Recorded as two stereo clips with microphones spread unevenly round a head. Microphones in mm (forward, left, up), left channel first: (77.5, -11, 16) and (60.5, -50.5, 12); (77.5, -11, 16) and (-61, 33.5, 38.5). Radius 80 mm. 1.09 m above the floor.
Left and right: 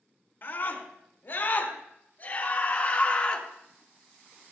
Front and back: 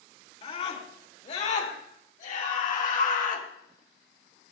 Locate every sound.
0.4 s a scream: 30° left, 3.5 m; by 3.5 s straight ahead, 2 m